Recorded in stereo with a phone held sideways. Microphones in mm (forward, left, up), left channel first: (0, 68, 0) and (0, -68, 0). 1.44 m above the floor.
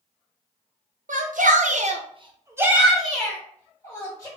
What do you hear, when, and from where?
1.1 s a shout: 75° right (ahead or behind), 0.9 m; by 4.3 s 20° left (ahead or behind), 1.5 m